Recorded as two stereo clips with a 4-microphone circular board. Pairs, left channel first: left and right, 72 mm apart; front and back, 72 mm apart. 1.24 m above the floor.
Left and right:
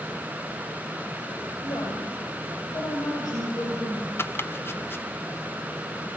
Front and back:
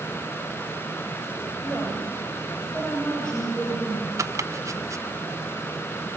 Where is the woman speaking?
85° left, 7.5 m; by 4.1 s 75° left, 7.5 m.